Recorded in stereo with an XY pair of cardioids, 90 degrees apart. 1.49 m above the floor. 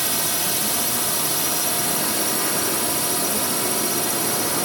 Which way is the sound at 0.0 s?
5° right.